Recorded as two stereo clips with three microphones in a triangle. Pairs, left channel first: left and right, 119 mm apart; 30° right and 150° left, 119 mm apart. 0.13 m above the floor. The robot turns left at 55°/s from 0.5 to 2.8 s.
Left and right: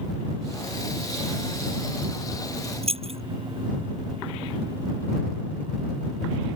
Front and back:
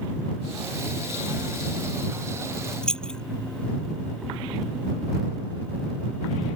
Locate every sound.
2.8 s keys jangling: 115° right